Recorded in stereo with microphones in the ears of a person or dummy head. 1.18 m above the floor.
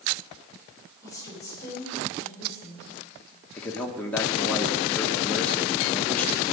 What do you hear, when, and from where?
1.0 s a woman speaking: 20° left (ahead or behind), 4 m
3.6 s a man speaking: 10° left (ahead or behind), 1.3 m